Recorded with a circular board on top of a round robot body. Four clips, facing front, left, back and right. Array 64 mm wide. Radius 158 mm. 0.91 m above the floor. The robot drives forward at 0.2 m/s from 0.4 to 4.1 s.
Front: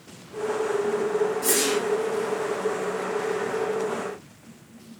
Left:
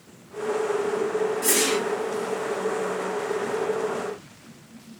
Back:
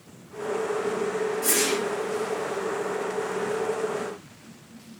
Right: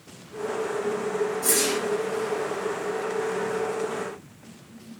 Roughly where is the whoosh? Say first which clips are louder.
Left 2 dB, front 2 dB; left.